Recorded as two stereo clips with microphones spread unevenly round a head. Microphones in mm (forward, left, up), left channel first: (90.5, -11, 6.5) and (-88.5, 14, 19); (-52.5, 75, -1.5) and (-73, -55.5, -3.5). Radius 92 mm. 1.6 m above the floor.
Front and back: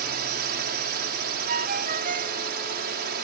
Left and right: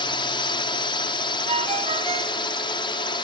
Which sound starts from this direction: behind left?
A drone, at 0.0 s.